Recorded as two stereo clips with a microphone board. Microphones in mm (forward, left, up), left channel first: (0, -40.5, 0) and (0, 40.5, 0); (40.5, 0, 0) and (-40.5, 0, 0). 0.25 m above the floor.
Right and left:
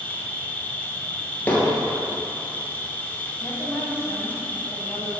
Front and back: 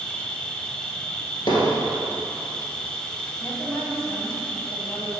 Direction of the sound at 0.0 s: 65° right.